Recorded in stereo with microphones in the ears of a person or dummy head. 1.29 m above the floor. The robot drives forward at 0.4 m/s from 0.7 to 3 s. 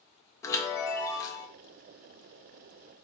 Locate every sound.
0.4 s a chime: 15° left (ahead or behind), 0.9 m; by 1.5 s 20° left (ahead or behind), 0.7 m